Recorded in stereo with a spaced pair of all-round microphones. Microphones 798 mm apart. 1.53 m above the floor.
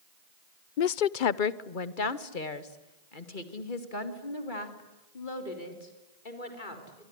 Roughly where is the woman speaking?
Left.